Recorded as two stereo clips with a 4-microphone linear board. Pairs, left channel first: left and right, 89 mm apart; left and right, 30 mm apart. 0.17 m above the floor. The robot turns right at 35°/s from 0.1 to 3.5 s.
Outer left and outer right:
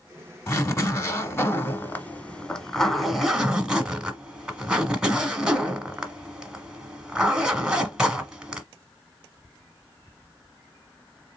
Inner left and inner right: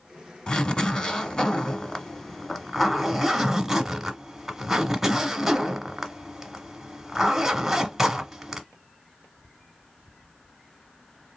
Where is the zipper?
90° left, 1.0 m; by 8.6 s 165° right, 1.0 m.